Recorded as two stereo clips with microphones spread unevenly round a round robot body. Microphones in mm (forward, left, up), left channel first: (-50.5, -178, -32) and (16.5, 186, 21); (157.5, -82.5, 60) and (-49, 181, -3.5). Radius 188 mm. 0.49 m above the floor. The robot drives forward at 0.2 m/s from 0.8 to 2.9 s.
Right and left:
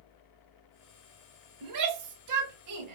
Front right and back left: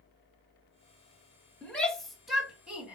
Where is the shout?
45° left, 1.3 m; by 3.0 s 55° left, 1.2 m.